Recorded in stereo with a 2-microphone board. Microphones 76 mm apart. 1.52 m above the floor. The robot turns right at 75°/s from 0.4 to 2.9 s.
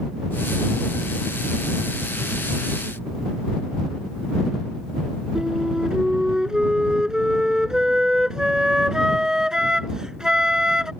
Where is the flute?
10° right (ahead or behind).